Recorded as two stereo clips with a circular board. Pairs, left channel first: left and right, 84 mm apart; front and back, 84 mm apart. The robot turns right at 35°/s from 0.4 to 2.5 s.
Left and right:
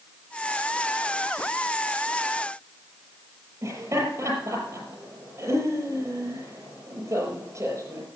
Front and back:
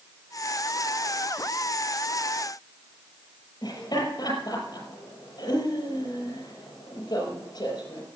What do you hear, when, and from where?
3.6 s laughter: 35° right, 6 m